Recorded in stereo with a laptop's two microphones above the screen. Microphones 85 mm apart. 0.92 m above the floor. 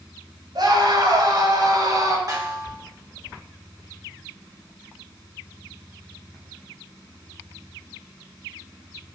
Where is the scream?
55° right (ahead or behind), 6.5 m; by 2.2 s 45° right (ahead or behind), 5 m.